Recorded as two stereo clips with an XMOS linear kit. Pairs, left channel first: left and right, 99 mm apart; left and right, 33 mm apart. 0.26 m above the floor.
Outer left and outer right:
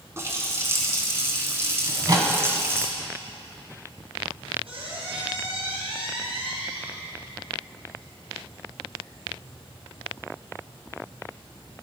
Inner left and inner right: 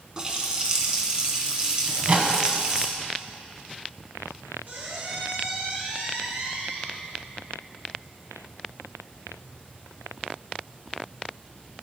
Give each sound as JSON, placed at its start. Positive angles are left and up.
{"t": 0.2, "sound": "a running tap", "side_deg": -25, "distance_m": 1.6}
{"t": 1.9, "sound": "a microwave", "side_deg": -40, "distance_m": 1.3}
{"t": 4.7, "sound": "a squeak", "side_deg": -65, "distance_m": 3.0}